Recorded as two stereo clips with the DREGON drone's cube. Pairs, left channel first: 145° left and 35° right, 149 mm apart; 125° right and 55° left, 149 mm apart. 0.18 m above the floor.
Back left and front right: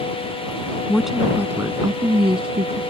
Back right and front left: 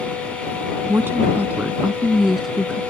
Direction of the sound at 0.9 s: 70° left.